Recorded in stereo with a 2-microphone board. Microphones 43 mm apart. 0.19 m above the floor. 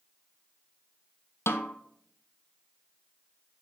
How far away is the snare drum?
About 1.1 m.